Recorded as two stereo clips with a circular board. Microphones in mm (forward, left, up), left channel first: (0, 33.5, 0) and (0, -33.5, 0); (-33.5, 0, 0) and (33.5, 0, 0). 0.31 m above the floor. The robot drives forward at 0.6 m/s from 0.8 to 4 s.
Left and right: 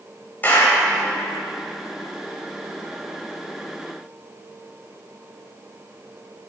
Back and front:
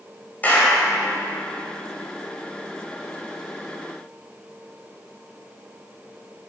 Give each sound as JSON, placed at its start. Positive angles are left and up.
{"t": 0.4, "sound": "a clap", "azimuth_deg": 135, "distance_m": 1.3}